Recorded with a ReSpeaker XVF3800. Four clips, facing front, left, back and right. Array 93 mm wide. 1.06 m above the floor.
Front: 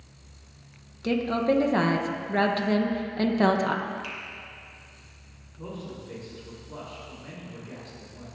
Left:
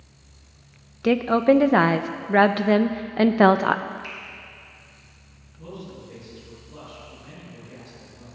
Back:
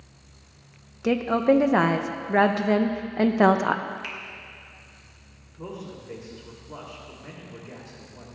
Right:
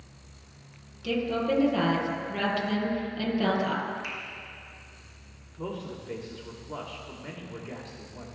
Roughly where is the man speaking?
Right.